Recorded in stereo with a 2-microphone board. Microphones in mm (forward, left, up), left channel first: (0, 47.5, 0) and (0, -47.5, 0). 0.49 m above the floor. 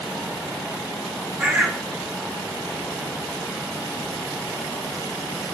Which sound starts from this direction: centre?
A bird, at 1.4 s.